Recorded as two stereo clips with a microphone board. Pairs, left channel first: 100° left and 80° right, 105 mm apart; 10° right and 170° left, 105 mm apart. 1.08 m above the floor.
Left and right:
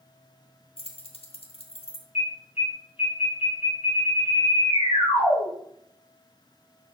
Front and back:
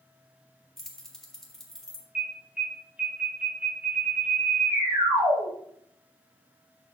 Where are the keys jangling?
75° left, 1.2 m.